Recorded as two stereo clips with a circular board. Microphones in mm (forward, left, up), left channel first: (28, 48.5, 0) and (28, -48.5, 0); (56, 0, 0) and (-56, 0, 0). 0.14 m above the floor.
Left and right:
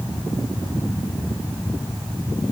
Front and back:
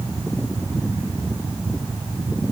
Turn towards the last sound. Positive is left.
No sound to turn to.